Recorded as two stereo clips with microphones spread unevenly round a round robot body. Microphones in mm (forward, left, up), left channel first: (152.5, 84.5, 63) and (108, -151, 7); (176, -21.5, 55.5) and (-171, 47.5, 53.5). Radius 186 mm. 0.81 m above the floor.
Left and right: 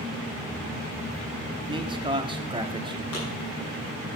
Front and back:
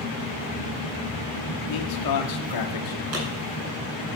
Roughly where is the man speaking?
Ahead right.